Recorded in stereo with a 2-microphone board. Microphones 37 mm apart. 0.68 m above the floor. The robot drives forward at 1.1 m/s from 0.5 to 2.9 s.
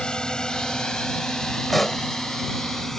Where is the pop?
5° left (ahead or behind).